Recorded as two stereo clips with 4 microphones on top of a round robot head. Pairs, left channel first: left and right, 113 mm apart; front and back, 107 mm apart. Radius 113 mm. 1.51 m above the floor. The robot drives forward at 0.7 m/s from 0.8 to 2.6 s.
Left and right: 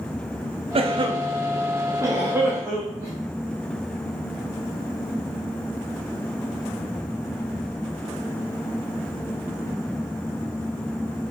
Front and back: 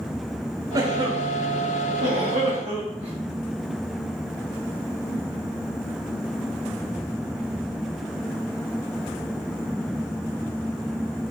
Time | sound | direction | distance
0.8 | a cough | 125° right | 0.8 m